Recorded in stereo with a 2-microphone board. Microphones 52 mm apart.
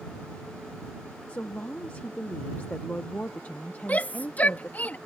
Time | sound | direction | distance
1.3 | a woman speaking | 30° left (ahead or behind) | ?
3.9 | a shout | 30° left (ahead or behind) | ?